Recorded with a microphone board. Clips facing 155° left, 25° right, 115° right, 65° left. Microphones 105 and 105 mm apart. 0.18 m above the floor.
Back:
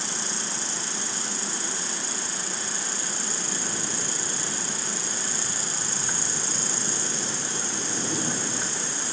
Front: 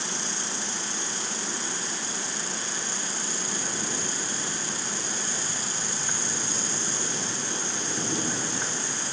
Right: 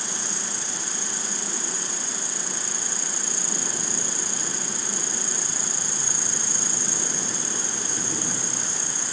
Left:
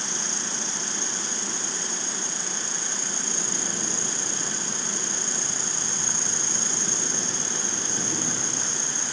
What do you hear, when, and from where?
0.0 s an insect: 175° left, 1.5 m